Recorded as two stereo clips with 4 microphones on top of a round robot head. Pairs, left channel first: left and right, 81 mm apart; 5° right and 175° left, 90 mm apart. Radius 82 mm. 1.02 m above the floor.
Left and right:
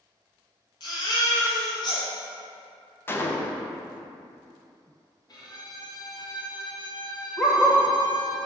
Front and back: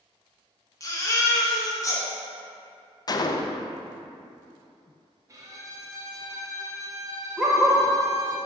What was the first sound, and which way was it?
A baby crying, 45° left.